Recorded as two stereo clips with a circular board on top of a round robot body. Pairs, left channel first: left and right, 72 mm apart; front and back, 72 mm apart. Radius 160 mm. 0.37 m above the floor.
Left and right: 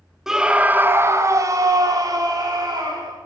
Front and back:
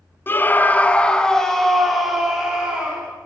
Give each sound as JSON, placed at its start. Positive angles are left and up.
{"t": 0.3, "sound": "a scream", "azimuth_deg": -10, "distance_m": 0.8}